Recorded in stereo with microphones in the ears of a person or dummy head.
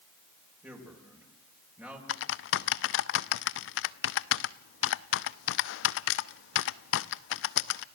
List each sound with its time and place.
0.6 s a man speaking: 20° right (ahead or behind), 5.5 m
2.1 s typing on a keyboard: 65° left (ahead or behind), 0.7 m